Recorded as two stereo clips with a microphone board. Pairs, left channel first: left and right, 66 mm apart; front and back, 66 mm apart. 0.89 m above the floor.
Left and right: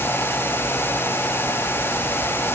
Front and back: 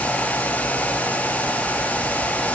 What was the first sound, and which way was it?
Only background noise.